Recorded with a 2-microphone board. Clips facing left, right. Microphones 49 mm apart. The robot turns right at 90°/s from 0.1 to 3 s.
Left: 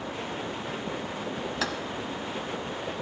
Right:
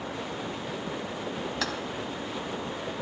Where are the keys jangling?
5° left (ahead or behind), 1.1 m; by 1.7 s 15° left (ahead or behind), 1.1 m.